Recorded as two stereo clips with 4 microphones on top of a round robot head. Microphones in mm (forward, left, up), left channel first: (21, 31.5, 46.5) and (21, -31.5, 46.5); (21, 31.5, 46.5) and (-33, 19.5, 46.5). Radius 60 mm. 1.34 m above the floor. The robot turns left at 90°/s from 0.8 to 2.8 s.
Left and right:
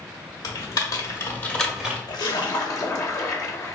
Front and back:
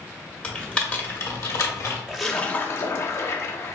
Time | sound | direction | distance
0.4 | typing on a keyboard | 85° left | 1.2 m
2.1 | a splash | 115° left | 0.7 m